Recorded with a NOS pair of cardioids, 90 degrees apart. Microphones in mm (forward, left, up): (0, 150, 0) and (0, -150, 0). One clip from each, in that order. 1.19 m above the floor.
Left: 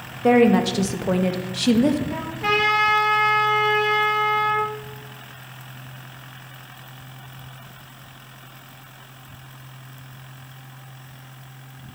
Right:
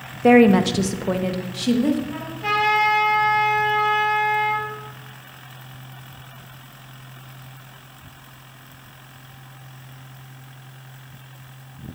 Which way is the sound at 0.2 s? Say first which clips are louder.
Right 2 dB; 25° right.